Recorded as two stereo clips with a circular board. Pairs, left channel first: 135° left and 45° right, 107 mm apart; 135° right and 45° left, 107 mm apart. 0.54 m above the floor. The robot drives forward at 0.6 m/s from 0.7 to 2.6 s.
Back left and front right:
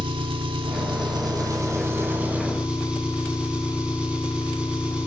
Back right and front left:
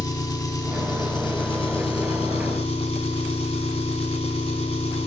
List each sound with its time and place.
0.0 s an engine running: 80° right, 1.4 m; by 5.1 s 125° right, 1.7 m